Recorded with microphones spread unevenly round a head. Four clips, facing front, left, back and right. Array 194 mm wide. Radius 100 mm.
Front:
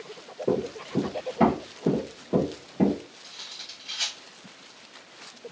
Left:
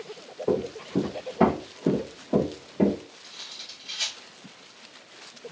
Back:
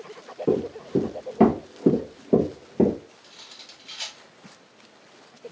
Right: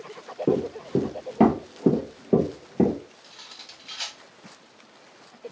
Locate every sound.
0.5 s running footsteps: 105° right, 2.5 m; by 3.0 s straight behind, 2.0 m
3.2 s cutlery clinking: 65° right, 1.4 m